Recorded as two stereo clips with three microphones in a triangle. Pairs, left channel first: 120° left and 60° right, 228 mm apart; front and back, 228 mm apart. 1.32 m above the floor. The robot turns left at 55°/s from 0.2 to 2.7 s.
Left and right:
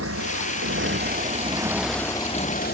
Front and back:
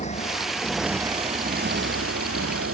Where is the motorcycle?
60° right; by 2.8 s 165° left.